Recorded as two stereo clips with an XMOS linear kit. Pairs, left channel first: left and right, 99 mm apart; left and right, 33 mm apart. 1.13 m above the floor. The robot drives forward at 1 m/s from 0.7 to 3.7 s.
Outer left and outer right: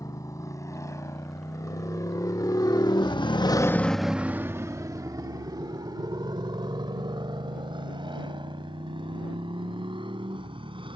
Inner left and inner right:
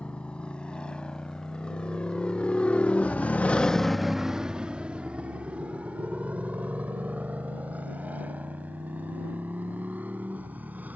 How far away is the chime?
No chime in this recording.